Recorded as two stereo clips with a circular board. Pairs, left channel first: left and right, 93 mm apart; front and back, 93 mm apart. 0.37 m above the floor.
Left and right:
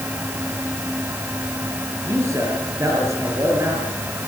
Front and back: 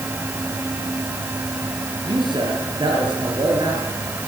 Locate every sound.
2.0 s a man speaking: 145° right, 6 m